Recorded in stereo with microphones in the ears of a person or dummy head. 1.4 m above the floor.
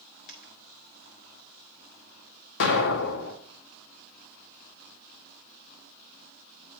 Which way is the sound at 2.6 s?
70° left (ahead or behind).